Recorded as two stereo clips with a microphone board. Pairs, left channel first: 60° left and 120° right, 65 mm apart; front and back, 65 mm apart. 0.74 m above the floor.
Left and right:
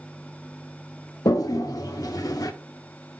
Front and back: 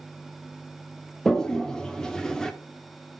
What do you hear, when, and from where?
1.2 s a toilet flushing: 80° left, 0.6 m